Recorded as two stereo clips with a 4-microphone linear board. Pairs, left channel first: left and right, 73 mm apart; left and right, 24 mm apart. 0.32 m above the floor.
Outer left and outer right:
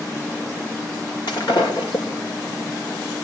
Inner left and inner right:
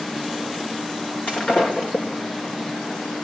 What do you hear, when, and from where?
1.3 s breaking glass: 70° left (ahead or behind), 3.5 m